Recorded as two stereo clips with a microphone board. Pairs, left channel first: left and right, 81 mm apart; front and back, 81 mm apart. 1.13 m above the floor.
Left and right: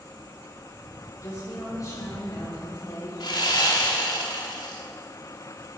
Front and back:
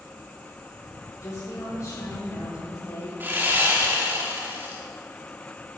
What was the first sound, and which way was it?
A woman speaking, 45° left.